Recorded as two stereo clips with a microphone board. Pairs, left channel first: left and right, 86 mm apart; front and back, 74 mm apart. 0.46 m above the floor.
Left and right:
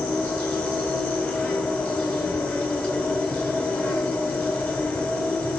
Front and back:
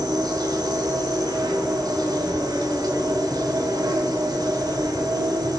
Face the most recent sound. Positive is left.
turn(degrees=160)